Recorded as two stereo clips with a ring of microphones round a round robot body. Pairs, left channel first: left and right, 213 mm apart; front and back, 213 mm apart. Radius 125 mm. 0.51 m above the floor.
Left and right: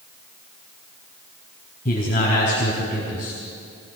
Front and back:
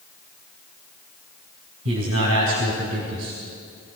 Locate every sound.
1.9 s a man speaking: 155° left, 3.5 m